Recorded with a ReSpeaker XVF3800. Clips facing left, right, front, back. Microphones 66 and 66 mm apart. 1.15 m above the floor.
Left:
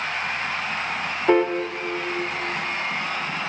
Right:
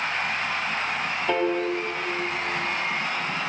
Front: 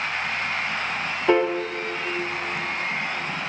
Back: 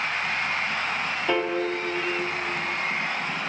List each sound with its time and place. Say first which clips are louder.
1.3 s a piano: left 6 dB, front 6 dB; 45° left, 1.3 m